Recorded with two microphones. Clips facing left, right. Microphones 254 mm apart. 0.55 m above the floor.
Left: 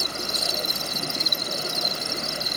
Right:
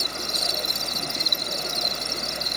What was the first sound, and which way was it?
An insect, 10° left (ahead or behind).